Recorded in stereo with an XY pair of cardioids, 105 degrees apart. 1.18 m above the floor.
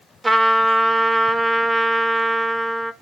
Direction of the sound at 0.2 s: 15° right.